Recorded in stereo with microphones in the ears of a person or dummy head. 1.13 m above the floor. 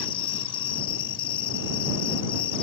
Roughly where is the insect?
Left.